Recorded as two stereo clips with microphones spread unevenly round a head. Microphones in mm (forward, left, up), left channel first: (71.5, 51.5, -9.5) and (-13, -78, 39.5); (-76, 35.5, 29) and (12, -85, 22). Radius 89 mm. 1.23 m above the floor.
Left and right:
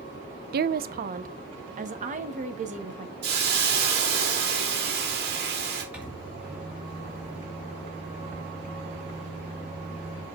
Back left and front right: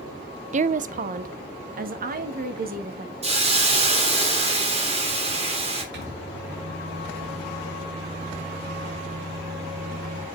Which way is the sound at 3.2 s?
100° right.